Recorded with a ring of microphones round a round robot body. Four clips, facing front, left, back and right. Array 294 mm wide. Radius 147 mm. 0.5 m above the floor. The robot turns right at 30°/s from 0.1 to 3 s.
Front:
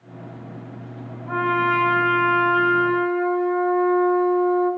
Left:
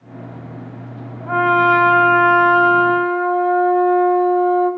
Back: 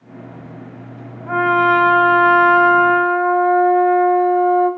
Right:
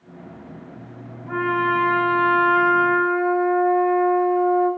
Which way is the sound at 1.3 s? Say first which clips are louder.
Left 7 dB, back 6 dB; 115° left.